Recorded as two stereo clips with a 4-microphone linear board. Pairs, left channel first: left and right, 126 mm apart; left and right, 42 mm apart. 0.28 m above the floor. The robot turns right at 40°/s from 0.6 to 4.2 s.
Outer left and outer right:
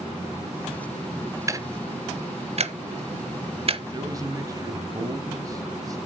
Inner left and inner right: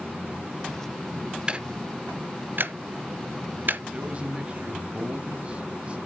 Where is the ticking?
25° right (ahead or behind), 0.6 m; by 3.8 s 50° right (ahead or behind), 0.6 m.